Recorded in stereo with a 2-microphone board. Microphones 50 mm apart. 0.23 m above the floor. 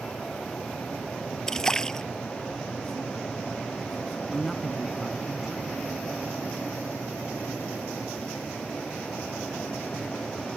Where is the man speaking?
Centre (ahead or behind).